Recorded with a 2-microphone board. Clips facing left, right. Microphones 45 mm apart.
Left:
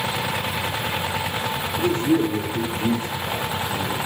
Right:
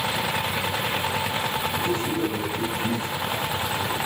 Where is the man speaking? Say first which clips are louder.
Left 8 dB; 70° left (ahead or behind), 4.5 m.